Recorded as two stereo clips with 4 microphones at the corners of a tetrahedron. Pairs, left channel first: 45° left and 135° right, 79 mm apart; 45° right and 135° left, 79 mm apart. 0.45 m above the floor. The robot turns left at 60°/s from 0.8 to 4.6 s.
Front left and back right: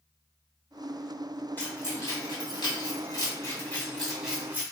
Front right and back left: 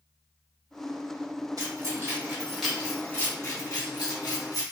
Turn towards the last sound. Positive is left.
turn(degrees=-70)